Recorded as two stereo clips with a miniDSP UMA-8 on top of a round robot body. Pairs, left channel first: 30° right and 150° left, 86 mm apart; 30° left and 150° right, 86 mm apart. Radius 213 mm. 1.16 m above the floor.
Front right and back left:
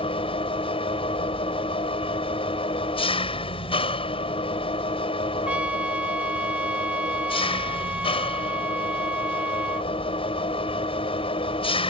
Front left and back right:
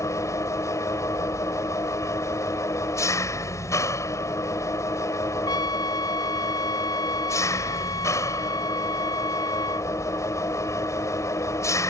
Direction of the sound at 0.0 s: 25° right.